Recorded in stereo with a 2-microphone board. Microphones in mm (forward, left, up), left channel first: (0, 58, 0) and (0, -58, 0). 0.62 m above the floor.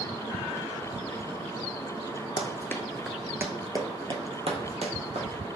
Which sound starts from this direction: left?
Running footsteps, at 2.4 s.